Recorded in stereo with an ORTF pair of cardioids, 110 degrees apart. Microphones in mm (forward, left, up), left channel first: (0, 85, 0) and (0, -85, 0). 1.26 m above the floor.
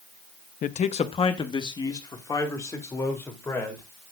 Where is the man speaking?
50° left, 1.0 m; by 3.9 s 15° left, 4.5 m.